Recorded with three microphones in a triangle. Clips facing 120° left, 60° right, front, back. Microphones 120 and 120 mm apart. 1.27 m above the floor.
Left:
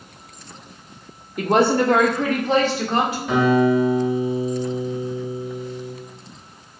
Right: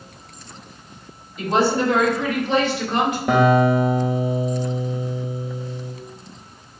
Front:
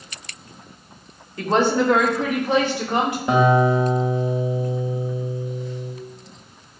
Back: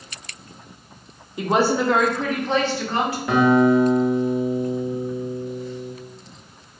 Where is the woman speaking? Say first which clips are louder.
Left 2 dB, front 1 dB; 110° left, 0.9 m; by 3.2 s 70° left, 1.6 m.